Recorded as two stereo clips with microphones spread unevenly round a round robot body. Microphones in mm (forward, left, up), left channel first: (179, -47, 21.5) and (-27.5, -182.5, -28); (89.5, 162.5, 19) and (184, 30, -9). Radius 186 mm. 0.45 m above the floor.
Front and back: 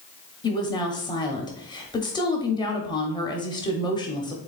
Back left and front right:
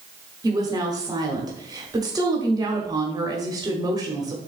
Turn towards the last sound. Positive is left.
turn(degrees=-45)